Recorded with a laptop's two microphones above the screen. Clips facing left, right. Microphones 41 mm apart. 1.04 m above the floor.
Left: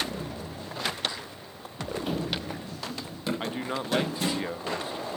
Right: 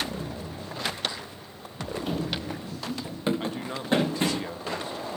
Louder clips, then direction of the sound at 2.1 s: Right 1 dB; 5° left (ahead or behind).